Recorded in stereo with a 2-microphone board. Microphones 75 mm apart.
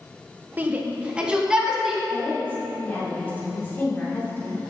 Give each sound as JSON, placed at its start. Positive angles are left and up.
{"t": 0.6, "sound": "a shout", "side_deg": -25, "distance_m": 1.0}
{"t": 2.1, "sound": "a woman speaking", "side_deg": 25, "distance_m": 3.0}